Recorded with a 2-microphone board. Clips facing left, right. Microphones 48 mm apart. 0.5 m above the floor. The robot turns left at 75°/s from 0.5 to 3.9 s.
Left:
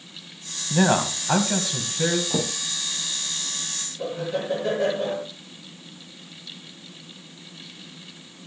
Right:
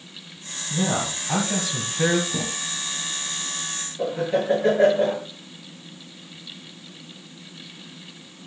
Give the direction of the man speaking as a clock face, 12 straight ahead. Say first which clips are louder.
Left 5 dB; 9 o'clock.